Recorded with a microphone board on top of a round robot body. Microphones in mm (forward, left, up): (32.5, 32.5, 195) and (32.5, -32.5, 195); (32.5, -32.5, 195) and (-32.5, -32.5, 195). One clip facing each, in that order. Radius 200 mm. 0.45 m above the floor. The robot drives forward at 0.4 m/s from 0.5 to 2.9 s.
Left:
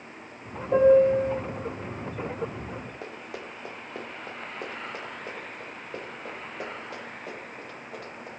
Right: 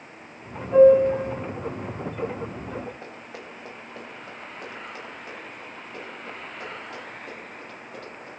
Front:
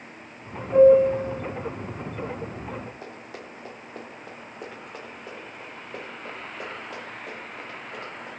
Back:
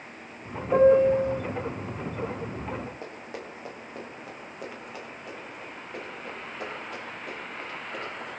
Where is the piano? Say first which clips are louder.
Right 3 dB, front 3 dB; 145° left, 1.6 m; by 1.4 s 150° left, 1.8 m.